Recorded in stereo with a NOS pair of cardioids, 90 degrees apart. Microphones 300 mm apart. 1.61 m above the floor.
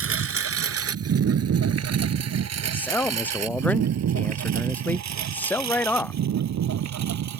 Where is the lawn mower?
50° right; by 7.4 s 65° right.